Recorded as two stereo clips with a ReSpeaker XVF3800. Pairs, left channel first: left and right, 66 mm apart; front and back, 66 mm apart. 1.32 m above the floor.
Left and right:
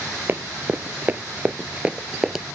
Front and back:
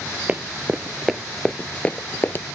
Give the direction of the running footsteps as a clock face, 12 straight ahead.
4 o'clock.